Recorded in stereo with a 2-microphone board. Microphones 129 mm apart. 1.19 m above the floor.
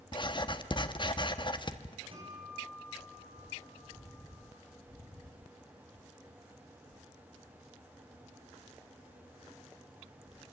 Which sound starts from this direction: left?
Writing, at 0.1 s.